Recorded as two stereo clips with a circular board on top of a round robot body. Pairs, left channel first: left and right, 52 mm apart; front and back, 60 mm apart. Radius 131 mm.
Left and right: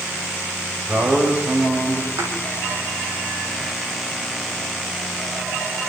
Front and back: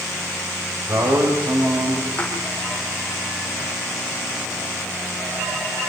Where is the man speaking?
145° right, 5.5 m.